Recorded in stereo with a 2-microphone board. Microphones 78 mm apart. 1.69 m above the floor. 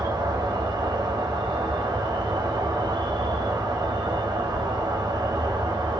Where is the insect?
65° right (ahead or behind), 0.7 m.